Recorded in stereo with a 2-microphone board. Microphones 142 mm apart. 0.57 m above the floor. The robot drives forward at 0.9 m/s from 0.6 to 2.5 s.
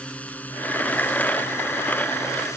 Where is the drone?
10° left (ahead or behind); by 2.6 s 20° left (ahead or behind).